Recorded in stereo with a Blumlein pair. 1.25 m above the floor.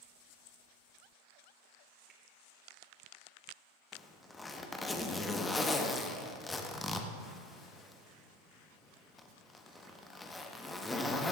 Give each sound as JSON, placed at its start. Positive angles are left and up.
{"t": 2.1, "sound": "a finger snap", "azimuth_deg": -30, "distance_m": 2.5}
{"t": 3.9, "sound": "a zipper", "azimuth_deg": 10, "distance_m": 1.1}